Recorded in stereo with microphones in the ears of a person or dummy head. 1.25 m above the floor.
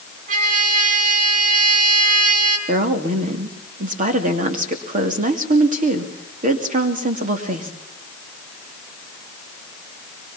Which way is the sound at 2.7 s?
40° right (ahead or behind).